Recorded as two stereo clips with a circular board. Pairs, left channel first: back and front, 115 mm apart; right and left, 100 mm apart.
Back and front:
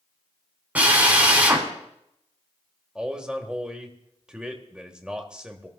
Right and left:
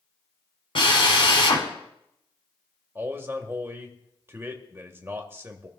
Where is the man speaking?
70° left, 1.5 m.